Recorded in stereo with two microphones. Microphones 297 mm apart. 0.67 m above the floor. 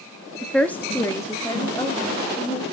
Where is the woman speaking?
Centre (ahead or behind), 0.6 m; by 2.6 s 15° left (ahead or behind), 1.8 m.